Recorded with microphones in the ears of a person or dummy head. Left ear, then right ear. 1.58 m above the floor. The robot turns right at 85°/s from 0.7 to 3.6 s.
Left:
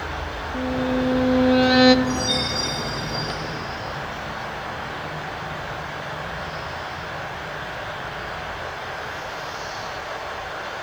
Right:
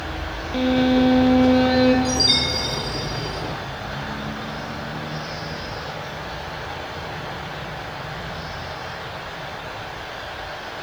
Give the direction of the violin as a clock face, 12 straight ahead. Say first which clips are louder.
Right 5 dB; 2 o'clock.